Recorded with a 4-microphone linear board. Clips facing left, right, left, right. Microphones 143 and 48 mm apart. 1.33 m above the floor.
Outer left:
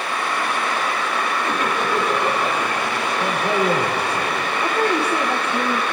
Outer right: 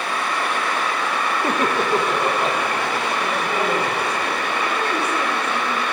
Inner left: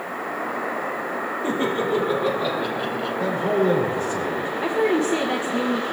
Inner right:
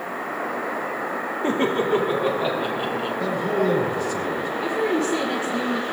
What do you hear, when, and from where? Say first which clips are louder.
1.4 s laughter: outer right 4 dB, inner right 2 dB; 50° right (ahead or behind), 2.5 m; by 3.1 s 20° right (ahead or behind), 3.5 m
3.2 s a man speaking: outer left 2 dB, inner left 2 dB; 35° left (ahead or behind), 6 m
4.6 s a woman speaking: outer left 6 dB, inner left 3 dB; 30° left (ahead or behind), 1.5 m